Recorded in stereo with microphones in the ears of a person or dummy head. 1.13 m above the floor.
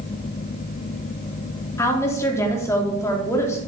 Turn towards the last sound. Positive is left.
turn(degrees=15)  # may be behind; listen again after turning